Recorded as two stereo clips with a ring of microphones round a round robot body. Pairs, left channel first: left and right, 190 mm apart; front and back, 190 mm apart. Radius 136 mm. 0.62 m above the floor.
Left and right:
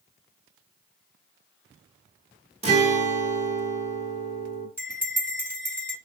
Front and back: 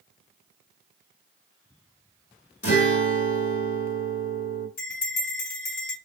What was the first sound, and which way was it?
A guitar, 35° right.